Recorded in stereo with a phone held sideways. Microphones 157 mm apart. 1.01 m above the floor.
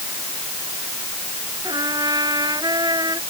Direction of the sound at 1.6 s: 25° right (ahead or behind).